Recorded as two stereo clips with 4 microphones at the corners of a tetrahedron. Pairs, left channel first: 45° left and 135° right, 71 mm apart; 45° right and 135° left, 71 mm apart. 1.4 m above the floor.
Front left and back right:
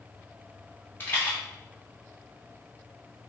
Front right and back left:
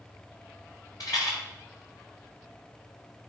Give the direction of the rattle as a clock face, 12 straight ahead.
1 o'clock.